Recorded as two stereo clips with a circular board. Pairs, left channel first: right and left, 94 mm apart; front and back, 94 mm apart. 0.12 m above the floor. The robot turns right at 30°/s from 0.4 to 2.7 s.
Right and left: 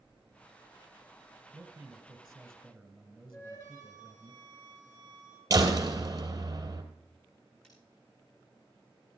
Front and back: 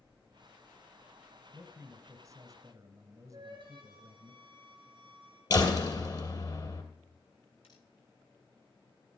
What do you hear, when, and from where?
1.5 s a man speaking: 155° left, 2.0 m; by 4.3 s 170° right, 2.0 m
3.3 s a flute: 150° right, 3.5 m
5.5 s a door slam: 40° left, 2.5 m
7.6 s cutlery clinking: 10° right, 5 m